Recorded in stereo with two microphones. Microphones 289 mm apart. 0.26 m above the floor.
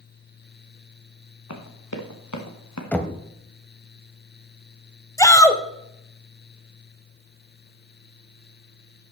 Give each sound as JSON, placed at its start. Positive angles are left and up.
{"t": 1.5, "sound": "running footsteps", "side_deg": 70, "distance_m": 2.5}
{"t": 2.9, "sound": "knocking", "side_deg": 5, "distance_m": 1.0}
{"t": 5.2, "sound": "a shout", "side_deg": 10, "distance_m": 1.1}